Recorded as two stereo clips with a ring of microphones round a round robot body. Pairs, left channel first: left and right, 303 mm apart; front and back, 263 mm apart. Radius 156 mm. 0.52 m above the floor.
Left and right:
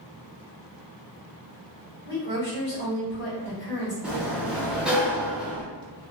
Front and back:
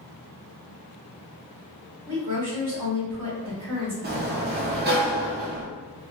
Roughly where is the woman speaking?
Behind.